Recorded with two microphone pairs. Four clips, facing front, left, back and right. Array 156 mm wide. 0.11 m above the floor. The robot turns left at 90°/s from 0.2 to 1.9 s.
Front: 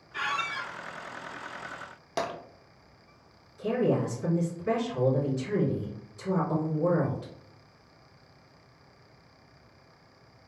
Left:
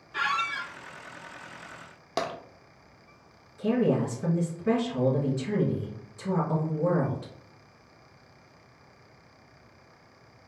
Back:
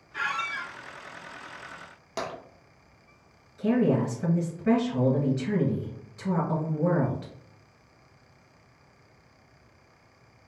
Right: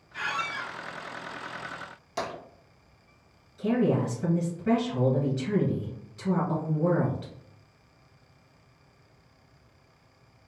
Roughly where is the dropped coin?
I don't hear a dropped coin.